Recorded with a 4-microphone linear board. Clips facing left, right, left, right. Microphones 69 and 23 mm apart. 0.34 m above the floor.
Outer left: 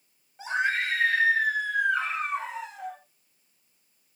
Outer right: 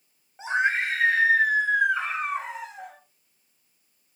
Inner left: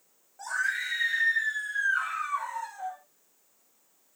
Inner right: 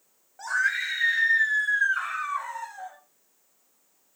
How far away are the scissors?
No scissors in this recording.